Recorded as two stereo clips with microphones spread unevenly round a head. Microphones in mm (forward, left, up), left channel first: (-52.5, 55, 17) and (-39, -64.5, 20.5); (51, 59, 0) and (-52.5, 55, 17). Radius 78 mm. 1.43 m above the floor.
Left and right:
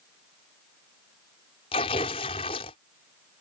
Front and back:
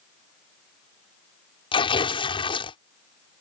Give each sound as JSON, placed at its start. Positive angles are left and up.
{"t": 1.7, "sound": "tearing paper", "azimuth_deg": 40}